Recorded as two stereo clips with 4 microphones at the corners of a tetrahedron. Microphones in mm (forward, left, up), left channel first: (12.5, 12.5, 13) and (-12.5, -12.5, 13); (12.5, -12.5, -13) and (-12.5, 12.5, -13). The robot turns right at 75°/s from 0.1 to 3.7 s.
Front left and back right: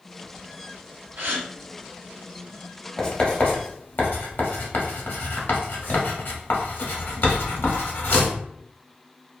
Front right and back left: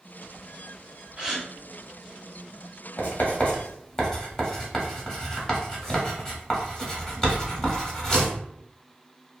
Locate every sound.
1.2 s a gasp: 160° right, 0.6 m; by 1.5 s 140° right, 0.6 m
3.0 s writing: 30° right, 0.9 m; by 8.3 s 25° left, 0.9 m